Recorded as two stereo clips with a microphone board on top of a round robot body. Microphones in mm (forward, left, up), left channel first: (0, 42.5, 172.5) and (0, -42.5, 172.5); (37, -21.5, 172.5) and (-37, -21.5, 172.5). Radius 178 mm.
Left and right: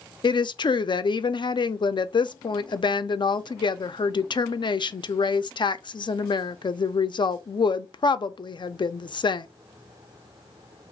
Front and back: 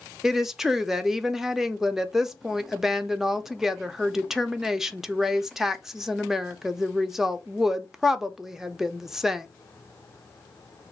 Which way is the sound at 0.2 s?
95° left.